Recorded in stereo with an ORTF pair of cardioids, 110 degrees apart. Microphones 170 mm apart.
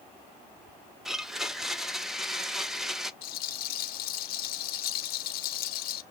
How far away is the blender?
About 0.7 m.